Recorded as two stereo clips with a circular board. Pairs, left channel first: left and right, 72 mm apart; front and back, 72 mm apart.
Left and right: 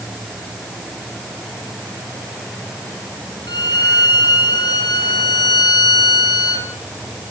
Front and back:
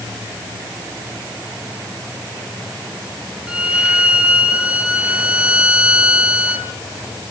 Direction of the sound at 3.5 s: 105° left.